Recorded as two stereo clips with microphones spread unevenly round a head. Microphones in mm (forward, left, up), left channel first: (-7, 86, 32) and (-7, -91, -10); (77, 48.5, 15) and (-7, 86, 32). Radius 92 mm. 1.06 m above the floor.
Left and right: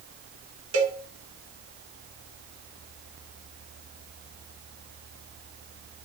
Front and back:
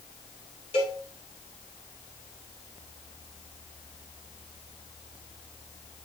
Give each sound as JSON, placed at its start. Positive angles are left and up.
{"t": 0.7, "sound": "a cowbell", "azimuth_deg": -75, "distance_m": 1.8}